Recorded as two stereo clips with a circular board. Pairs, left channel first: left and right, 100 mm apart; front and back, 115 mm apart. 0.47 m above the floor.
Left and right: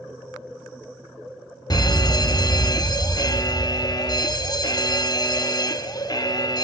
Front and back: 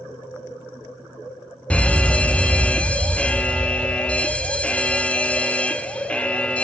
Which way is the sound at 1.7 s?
75° left.